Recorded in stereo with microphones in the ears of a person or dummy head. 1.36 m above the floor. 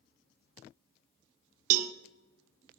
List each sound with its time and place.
1.7 s a cowbell: 45° right (ahead or behind), 0.6 m